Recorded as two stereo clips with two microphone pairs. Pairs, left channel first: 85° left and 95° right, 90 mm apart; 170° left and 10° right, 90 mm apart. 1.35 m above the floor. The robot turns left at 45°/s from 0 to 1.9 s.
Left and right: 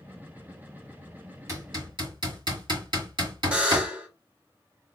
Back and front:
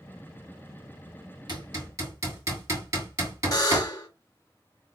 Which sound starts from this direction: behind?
A buzzer, at 3.5 s.